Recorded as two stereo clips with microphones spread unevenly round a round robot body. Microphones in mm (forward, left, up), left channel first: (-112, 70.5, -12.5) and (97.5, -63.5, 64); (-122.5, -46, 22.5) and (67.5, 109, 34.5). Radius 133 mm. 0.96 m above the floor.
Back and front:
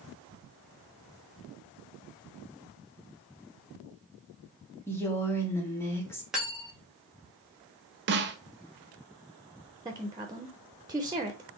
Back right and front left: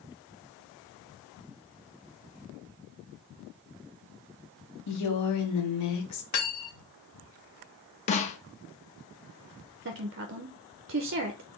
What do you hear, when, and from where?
4.9 s a woman speaking: 135° right, 1.8 m
6.3 s cutlery clinking: 120° right, 1.7 m
8.1 s a snare drum: 85° right, 0.7 m
9.8 s a woman speaking: 55° left, 0.7 m